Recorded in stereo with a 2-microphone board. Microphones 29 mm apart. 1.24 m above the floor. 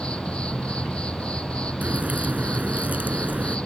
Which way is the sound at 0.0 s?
40° left (ahead or behind).